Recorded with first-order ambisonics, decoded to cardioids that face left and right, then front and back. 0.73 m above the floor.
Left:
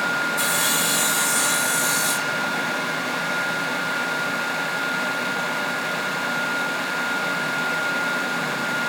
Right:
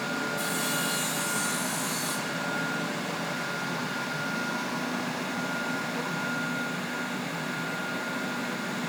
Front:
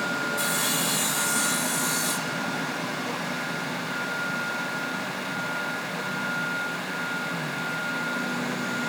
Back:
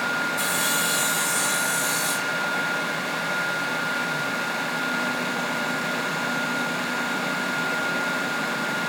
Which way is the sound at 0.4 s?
100° left.